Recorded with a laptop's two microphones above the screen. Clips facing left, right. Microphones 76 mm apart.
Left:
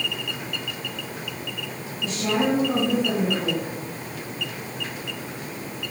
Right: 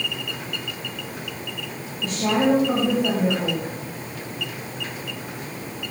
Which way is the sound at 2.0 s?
50° right (ahead or behind).